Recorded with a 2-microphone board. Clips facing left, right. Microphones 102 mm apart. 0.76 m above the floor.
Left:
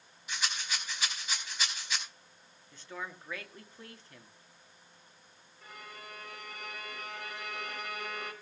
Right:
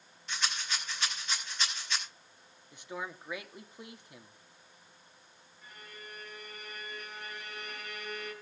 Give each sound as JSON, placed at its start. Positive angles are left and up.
{"t": 0.3, "sound": "a rattle", "side_deg": 10, "distance_m": 5.0}
{"t": 2.7, "sound": "a man speaking", "side_deg": -15, "distance_m": 1.5}
{"t": 5.6, "sound": "a violin", "side_deg": 80, "distance_m": 3.5}